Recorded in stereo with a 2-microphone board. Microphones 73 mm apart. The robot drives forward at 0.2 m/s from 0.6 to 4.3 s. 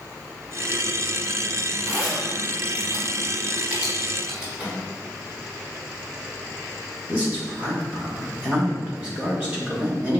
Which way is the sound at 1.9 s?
20° right (ahead or behind).